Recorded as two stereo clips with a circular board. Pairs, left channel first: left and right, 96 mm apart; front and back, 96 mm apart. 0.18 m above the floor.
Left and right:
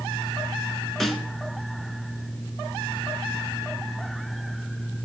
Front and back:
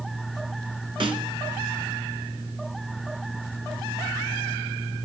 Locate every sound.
1.0 s a snare drum: straight behind, 1.1 m